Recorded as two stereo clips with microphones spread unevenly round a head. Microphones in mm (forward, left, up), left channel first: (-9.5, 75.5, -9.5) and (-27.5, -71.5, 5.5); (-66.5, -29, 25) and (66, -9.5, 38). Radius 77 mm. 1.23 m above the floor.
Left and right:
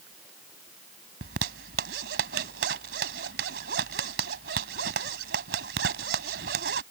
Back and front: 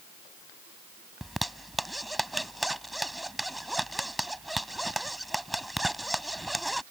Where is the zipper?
80° right.